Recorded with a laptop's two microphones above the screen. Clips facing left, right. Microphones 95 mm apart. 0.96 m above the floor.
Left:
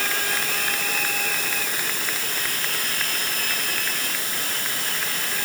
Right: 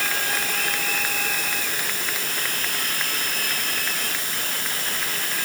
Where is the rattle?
I don't hear a rattle.